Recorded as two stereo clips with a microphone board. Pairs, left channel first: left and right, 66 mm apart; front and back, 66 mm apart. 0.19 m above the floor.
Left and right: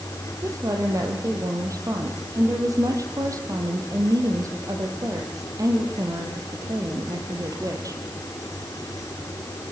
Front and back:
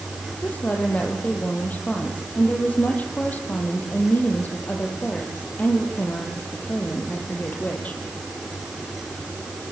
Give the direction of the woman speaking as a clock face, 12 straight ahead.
2 o'clock.